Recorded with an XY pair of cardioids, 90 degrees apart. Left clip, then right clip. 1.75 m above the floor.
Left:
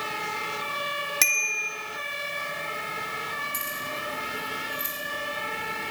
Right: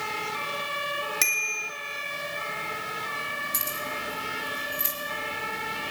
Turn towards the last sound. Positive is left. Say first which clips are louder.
# even
turn(degrees=-45)